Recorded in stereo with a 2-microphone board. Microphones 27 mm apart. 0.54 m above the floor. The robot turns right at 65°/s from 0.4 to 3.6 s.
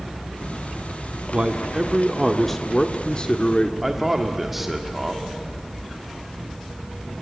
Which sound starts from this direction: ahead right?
A man speaking, at 1.3 s.